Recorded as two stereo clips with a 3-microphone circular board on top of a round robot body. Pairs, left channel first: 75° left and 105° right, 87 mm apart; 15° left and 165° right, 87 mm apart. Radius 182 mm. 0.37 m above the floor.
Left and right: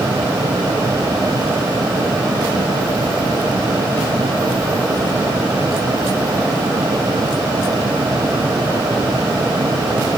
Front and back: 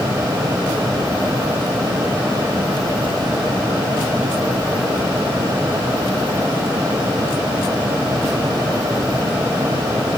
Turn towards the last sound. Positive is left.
No sound to turn to.